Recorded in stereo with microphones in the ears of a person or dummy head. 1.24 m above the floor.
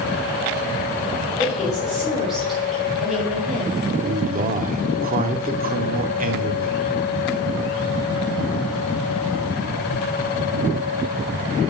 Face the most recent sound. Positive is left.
turn(degrees=-40)  # may be behind; listen again after turning